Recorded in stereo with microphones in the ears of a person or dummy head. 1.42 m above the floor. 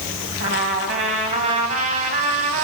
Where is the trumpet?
40° right (ahead or behind), 2.0 m.